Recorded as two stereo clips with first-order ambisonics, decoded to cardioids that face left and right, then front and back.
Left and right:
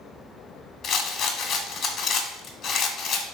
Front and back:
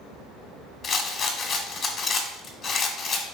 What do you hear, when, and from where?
0.8 s a rattle: 40° left, 1.1 m